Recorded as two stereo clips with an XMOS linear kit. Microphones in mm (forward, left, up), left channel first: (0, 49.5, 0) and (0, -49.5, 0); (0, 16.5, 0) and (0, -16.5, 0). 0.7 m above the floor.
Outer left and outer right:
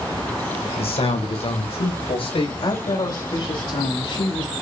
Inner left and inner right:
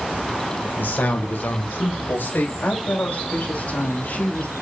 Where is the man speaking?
70° left (ahead or behind), 3 m.